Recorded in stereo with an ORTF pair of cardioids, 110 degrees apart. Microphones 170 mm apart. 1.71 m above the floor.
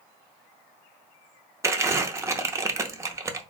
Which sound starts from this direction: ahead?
Crumpling, at 1.6 s.